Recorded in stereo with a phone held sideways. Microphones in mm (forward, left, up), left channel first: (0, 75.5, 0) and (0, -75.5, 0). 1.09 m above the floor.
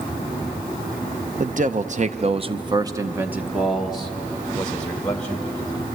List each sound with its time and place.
1.4 s a man speaking: 55° right (ahead or behind), 0.9 m; by 6.0 s 15° left (ahead or behind), 2.5 m